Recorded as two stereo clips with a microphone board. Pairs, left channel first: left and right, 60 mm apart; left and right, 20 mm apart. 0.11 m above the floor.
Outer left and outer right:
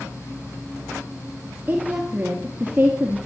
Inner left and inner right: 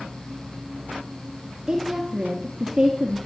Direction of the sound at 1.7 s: 25° right (ahead or behind).